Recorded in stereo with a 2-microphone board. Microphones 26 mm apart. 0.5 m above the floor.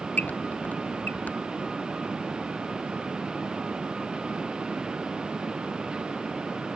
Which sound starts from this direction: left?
A squeak, at 0.2 s.